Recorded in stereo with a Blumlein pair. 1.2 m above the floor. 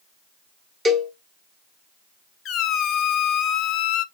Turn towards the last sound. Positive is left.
turn(degrees=30)